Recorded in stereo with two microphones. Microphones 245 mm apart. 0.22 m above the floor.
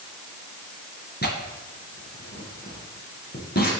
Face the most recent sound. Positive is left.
turn(degrees=40)  # may be behind; listen again after turning